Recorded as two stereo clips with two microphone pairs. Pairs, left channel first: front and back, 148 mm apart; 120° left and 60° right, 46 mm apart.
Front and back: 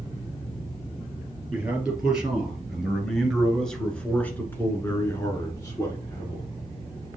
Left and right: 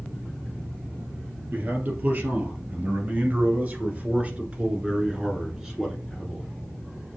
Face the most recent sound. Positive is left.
turn(degrees=40)